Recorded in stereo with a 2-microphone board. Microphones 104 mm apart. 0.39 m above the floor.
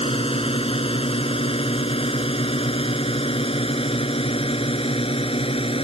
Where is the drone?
65° left (ahead or behind).